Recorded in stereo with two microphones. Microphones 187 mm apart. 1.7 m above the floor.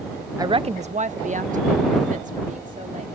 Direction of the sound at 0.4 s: 15° right (ahead or behind).